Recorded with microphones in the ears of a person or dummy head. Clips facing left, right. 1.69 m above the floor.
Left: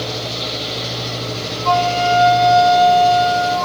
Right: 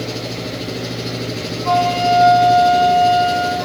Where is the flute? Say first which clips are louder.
Right 1 dB; 10° right (ahead or behind), 8.5 m.